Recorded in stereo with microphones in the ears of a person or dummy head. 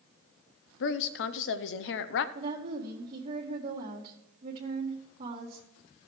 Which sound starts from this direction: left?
A woman speaking, at 0.8 s.